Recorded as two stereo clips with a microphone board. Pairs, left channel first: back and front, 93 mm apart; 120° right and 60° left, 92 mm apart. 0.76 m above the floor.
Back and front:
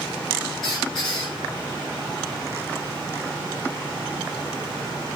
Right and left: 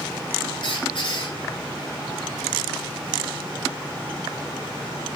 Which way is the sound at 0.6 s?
95° right.